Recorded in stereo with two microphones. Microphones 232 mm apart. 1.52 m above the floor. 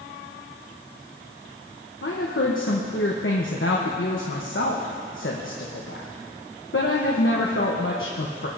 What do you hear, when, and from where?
2.0 s a woman speaking: 60° left (ahead or behind), 1.1 m